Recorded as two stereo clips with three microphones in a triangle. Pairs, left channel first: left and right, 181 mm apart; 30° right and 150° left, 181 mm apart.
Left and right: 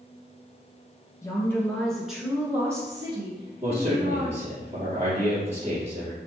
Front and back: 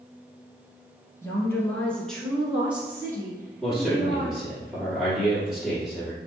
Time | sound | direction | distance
1.2 | a woman speaking | 30° left | 1.3 m
3.6 | a man speaking | 125° right | 2.0 m